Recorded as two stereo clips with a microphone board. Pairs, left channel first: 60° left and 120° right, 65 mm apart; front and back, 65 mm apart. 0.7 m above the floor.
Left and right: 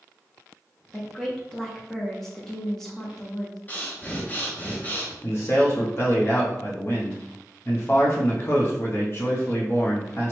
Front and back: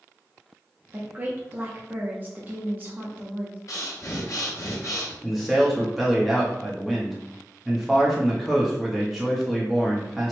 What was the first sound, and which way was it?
A woman speaking, 140° left.